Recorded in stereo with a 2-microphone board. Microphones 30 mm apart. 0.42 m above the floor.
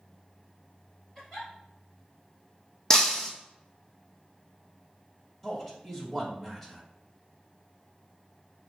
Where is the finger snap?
No finger snap in this recording.